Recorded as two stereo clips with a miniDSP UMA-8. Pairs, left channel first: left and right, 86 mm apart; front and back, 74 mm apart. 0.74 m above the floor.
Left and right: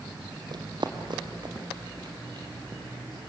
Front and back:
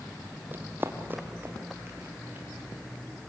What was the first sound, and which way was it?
Running footsteps, 120° right.